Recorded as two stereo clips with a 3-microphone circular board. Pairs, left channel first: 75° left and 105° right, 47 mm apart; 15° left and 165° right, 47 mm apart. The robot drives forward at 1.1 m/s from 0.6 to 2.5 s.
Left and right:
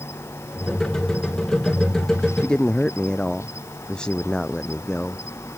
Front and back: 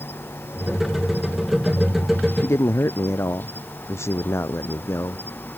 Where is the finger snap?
No finger snap in this recording.